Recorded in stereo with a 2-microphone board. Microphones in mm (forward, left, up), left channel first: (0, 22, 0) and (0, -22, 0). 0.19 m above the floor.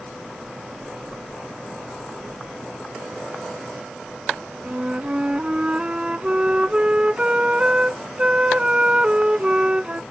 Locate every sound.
4.6 s a flute: 25° right (ahead or behind)